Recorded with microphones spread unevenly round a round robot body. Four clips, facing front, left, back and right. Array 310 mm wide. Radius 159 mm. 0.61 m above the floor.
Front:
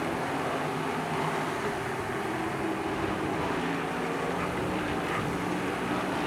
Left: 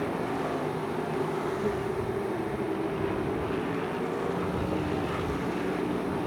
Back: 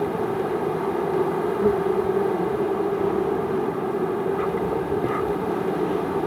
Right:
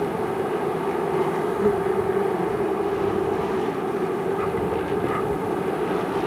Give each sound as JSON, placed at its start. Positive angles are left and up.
{"t": 0.0, "sound": "an insect", "azimuth_deg": -140}